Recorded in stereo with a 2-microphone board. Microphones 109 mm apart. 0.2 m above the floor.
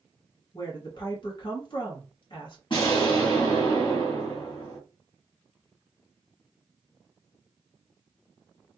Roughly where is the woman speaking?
Left.